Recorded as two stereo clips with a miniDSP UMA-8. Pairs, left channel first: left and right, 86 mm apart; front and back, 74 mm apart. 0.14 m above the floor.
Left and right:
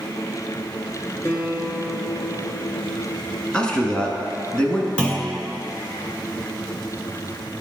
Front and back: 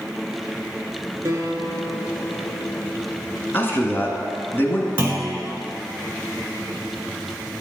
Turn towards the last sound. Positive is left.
turn(degrees=150)